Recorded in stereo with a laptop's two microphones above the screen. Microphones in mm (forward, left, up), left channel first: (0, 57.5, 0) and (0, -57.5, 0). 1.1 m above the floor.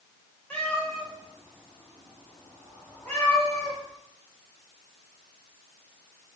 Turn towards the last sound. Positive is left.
turn(degrees=15)  # may be behind; listen again after turning